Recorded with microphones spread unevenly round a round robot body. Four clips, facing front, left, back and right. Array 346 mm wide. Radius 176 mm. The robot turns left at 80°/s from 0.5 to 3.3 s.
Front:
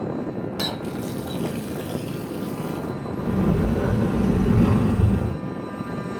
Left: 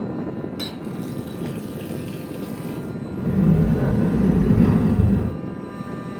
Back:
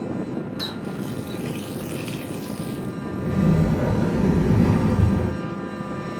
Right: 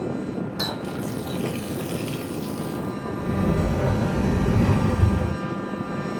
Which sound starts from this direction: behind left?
A sliding door, at 3.2 s.